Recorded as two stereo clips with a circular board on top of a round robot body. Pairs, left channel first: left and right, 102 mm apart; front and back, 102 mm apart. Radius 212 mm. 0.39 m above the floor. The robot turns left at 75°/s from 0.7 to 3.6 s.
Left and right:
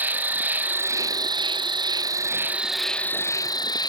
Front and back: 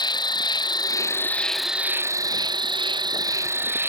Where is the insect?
25° right; by 3.9 s 120° left.